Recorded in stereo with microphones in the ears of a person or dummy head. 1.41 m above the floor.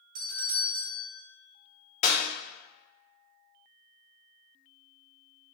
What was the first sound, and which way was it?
A doorbell, 45° right (ahead or behind).